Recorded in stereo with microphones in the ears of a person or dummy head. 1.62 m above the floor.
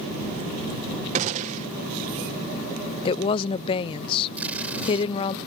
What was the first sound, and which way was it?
A gunshot, 35° right (ahead or behind).